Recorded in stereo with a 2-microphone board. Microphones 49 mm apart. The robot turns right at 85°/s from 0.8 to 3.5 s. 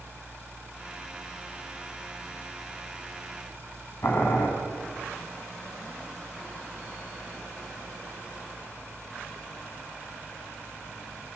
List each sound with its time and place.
4.0 s boiling: 65° left (ahead or behind), 4 m